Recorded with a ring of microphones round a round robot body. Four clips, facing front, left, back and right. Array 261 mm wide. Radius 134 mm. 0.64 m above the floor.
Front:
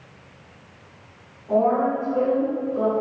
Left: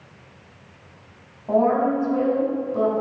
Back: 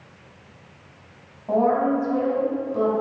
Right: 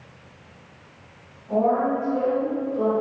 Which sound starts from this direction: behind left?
A woman speaking, at 1.5 s.